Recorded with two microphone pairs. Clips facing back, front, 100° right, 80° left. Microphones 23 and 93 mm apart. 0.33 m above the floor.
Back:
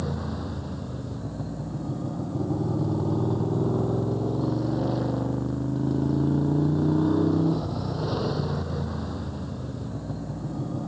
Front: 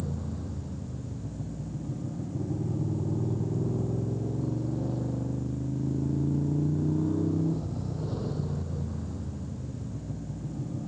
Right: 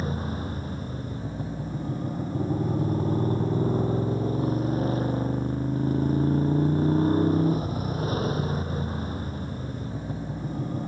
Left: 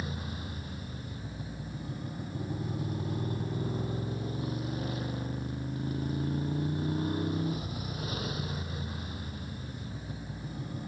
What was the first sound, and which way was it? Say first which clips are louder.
A motorcycle: back 5 dB, right 8 dB; 150° right.